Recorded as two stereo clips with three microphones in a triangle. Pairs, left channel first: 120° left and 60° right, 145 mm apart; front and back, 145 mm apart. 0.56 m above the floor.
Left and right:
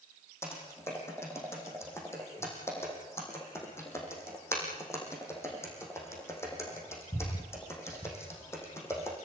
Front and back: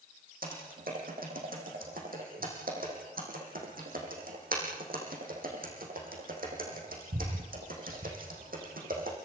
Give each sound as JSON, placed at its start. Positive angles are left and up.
{"t": 0.4, "sound": "typing on a keyboard", "azimuth_deg": -170, "distance_m": 6.5}